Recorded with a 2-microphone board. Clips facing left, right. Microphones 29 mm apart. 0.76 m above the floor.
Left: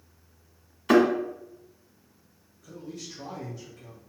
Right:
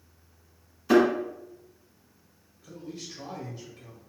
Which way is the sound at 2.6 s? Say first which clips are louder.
Even; 25° right (ahead or behind).